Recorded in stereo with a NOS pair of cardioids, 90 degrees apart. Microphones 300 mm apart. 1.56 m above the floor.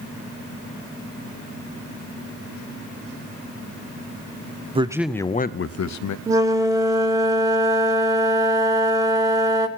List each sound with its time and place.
4.8 s a man speaking: 20° right, 0.7 m; by 6.2 s 80° left, 0.8 m
6.3 s a flute: 10° right, 1.6 m